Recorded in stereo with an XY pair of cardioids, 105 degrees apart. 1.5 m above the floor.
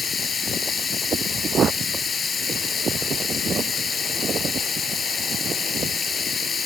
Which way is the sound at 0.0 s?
35° left.